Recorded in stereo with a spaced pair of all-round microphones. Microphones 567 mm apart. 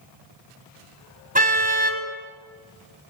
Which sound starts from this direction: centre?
A car horn, at 1.4 s.